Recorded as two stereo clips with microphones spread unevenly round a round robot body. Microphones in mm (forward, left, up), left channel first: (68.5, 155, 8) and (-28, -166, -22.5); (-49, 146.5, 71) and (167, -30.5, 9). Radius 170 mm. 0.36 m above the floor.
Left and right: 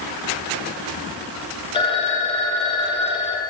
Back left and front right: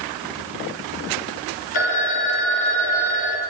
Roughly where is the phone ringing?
Behind left.